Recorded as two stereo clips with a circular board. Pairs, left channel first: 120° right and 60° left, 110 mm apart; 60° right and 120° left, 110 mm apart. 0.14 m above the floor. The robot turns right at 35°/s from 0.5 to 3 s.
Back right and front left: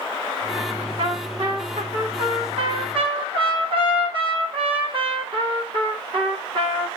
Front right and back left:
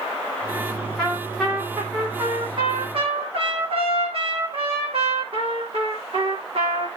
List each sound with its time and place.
1.0 s a trumpet: 20° left, 8 m; by 6.9 s 95° left, 8 m